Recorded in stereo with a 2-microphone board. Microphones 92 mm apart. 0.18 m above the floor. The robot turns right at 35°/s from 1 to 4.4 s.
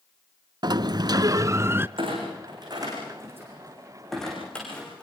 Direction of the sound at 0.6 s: 55° right.